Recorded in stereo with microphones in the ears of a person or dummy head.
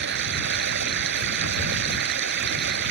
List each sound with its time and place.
0.0 s running water: 65° right (ahead or behind)